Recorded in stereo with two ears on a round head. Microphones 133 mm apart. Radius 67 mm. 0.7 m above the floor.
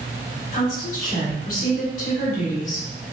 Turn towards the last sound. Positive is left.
turn(degrees=55)  # may be behind; listen again after turning